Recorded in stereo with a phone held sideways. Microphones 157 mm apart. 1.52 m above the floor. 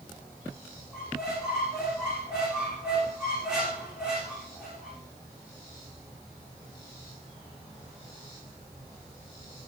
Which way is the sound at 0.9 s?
5° right (ahead or behind).